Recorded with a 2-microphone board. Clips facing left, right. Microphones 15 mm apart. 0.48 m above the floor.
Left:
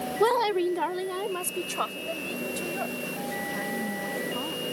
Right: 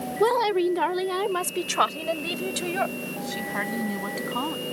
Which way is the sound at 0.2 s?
10° left (ahead or behind).